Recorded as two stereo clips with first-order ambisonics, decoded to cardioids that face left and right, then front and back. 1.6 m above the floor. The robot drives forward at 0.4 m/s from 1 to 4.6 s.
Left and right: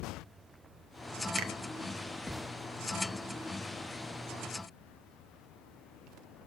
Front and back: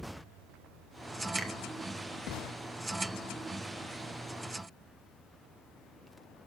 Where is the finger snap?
105° right, 1.6 m.